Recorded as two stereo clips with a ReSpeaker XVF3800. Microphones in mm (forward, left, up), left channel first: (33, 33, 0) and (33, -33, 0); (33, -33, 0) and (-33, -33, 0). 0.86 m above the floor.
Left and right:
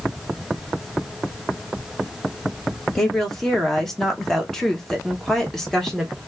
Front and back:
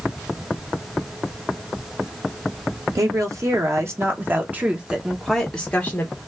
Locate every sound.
3.0 s a woman speaking: 175° left, 1.5 m; by 6.2 s 15° left, 1.0 m